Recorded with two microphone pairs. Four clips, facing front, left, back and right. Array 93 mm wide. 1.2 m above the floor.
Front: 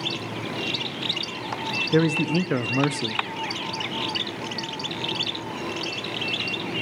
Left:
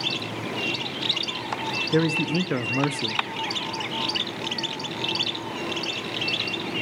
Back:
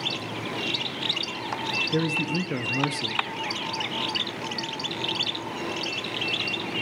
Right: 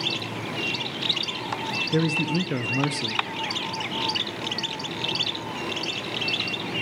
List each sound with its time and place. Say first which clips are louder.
1.9 s a man speaking: left 2 dB, front 6 dB; 25° left, 0.6 m